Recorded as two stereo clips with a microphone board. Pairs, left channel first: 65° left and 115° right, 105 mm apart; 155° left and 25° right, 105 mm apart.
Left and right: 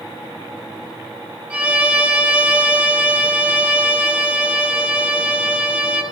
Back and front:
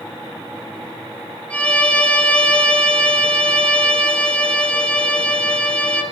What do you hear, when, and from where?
1.5 s a violin: 155° right, 1.1 m